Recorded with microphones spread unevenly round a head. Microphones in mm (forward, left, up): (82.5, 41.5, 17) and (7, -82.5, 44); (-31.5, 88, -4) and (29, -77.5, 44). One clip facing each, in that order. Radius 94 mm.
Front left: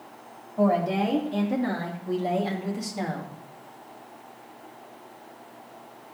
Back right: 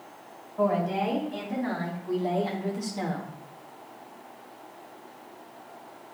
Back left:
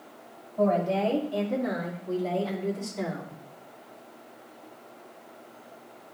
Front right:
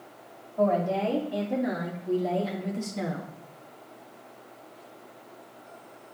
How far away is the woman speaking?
About 3 m.